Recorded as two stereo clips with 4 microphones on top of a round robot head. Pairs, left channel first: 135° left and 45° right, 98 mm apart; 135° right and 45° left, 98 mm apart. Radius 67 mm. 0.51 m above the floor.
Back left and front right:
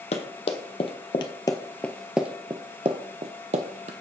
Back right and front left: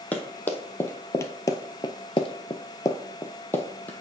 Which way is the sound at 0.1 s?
155° left.